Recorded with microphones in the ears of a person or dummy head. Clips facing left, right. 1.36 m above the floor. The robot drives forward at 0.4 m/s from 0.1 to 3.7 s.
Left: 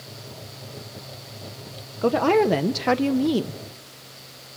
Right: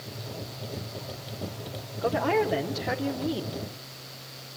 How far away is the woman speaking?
About 0.7 m.